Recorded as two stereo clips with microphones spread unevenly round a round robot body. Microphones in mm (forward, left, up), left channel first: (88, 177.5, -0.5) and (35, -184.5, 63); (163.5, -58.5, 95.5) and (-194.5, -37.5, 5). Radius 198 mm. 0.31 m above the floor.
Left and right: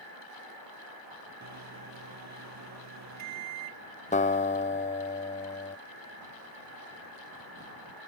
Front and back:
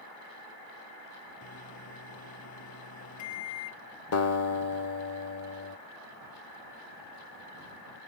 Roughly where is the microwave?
Ahead right.